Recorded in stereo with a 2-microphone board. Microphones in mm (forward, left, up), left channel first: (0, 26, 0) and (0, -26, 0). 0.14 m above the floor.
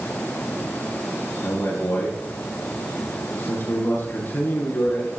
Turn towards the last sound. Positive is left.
turn(degrees=55)  # may be behind; listen again after turning